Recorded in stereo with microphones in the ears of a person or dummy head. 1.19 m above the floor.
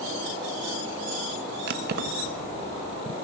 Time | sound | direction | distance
1.7 | keys jangling | 55° right (ahead or behind) | 0.9 m